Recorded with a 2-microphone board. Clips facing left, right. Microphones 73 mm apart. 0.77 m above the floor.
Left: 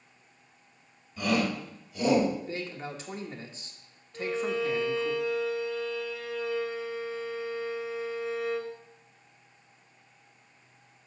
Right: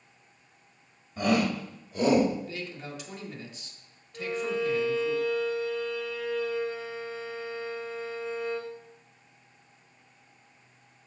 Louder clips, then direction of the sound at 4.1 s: Even; 5° left (ahead or behind).